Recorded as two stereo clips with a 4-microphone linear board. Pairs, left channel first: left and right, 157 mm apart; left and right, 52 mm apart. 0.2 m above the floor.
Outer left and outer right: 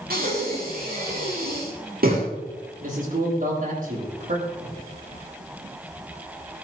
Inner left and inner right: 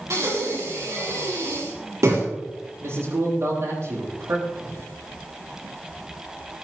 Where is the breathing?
70° right (ahead or behind), 5.5 m.